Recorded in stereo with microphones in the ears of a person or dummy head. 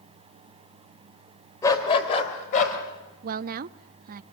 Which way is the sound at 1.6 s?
20° left (ahead or behind).